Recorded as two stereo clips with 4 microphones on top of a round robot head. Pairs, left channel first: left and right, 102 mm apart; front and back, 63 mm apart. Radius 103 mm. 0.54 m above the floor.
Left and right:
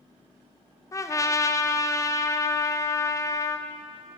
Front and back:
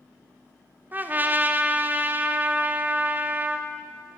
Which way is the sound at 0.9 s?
130° left.